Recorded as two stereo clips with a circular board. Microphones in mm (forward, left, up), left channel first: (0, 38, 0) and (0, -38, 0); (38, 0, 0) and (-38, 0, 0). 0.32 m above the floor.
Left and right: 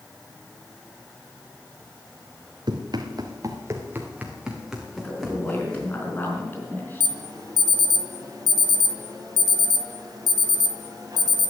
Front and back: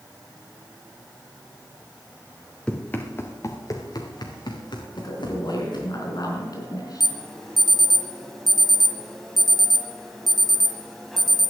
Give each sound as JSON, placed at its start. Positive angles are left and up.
{"t": 2.7, "sound": "running footsteps", "azimuth_deg": -75, "distance_m": 2.5}
{"t": 5.0, "sound": "a woman speaking", "azimuth_deg": 30, "distance_m": 4.0}
{"t": 7.0, "sound": "an alarm", "azimuth_deg": -85, "distance_m": 1.5}